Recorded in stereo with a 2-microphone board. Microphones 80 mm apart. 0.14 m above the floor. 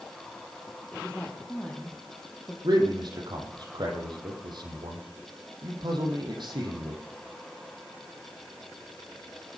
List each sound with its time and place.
0.9 s a woman speaking: 10° left (ahead or behind), 5 m
2.6 s a man speaking: 65° right (ahead or behind), 5.5 m